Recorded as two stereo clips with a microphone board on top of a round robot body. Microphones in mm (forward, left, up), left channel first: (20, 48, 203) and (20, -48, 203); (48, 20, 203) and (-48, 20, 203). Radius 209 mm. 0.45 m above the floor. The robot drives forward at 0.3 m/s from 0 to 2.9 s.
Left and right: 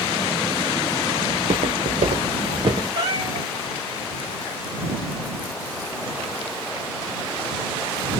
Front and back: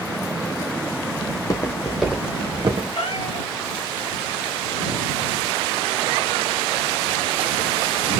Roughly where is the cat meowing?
Ahead right.